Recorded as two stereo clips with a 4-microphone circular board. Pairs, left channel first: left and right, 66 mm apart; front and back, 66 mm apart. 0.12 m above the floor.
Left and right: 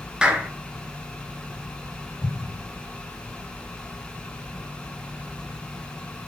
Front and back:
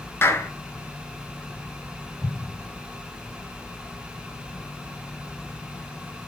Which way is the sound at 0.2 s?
20° right.